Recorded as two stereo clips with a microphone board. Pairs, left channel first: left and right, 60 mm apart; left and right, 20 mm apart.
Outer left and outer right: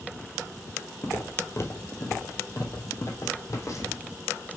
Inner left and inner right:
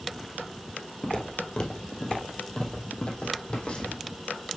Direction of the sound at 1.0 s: 45° left (ahead or behind).